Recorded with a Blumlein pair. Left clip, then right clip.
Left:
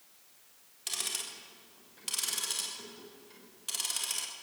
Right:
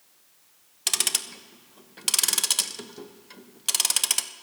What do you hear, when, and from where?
0.9 s ticking: 30° right, 0.8 m